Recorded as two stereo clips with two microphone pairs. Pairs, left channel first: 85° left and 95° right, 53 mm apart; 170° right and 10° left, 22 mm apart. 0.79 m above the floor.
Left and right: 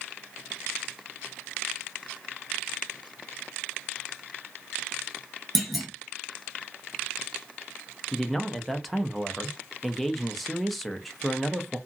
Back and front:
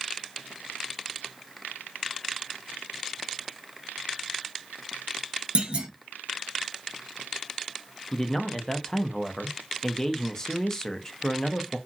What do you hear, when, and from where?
5.5 s a clunk: 5° right, 0.9 m
8.1 s a man speaking: straight behind, 0.5 m